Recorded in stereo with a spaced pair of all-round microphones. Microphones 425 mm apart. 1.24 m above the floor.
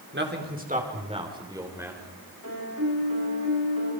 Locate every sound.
0.1 s a man speaking: 25° right (ahead or behind), 4.5 m; by 2.1 s 5° right (ahead or behind), 6 m
2.4 s a piano: 50° right (ahead or behind), 10 m